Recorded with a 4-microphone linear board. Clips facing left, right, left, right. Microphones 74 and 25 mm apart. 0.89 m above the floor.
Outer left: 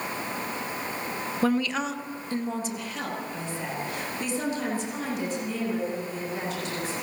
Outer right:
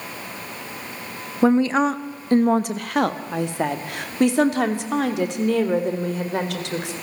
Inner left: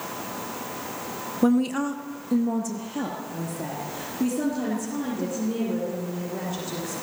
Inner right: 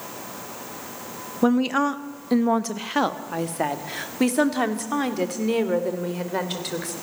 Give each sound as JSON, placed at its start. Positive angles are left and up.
{"t": 1.4, "sound": "a woman speaking", "side_deg": -20, "distance_m": 0.8}